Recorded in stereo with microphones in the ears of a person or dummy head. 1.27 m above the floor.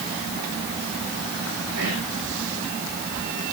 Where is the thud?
No thud in this recording.